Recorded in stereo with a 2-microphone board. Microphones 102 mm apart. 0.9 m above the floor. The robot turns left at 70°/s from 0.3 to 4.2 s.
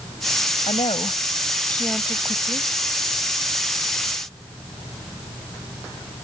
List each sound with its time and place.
0.7 s a woman speaking: 85° left; by 2.7 s 55° right